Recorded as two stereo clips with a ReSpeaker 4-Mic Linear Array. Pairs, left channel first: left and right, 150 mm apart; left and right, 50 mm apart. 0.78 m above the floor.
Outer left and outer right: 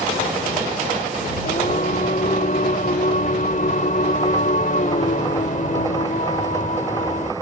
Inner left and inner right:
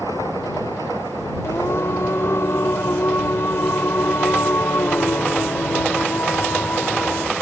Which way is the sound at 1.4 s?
65° left (ahead or behind).